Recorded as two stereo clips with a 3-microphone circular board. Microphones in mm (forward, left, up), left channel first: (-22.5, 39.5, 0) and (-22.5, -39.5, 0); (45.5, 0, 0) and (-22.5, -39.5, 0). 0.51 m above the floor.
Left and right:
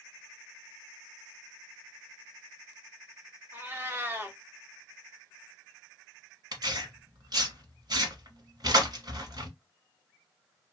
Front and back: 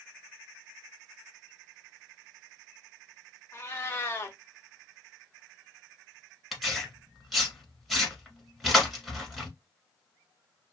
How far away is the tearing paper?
About 1.3 m.